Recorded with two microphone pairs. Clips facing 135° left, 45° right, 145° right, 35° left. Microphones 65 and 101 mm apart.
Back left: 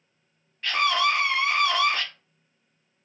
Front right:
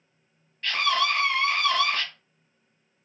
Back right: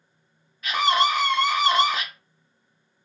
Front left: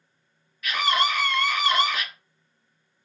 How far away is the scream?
About 1.0 m.